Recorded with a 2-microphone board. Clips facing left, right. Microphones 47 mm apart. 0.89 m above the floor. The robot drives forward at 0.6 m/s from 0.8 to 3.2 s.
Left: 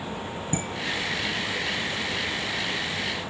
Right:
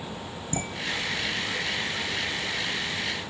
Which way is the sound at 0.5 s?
35° left (ahead or behind).